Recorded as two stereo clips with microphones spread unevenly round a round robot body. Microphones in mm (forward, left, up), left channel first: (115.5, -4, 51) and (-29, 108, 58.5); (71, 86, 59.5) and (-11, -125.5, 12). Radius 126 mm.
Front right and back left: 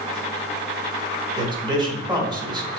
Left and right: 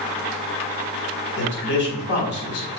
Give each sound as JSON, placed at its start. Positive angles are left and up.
{"t": 1.4, "sound": "a man speaking", "azimuth_deg": 90, "distance_m": 1.3}